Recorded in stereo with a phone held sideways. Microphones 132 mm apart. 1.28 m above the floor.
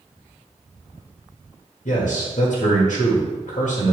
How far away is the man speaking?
About 1.5 m.